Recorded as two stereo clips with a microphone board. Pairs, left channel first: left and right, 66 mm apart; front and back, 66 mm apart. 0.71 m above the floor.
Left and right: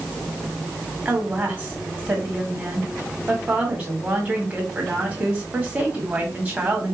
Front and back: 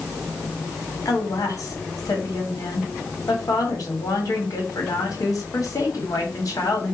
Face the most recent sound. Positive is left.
turn(degrees=-25)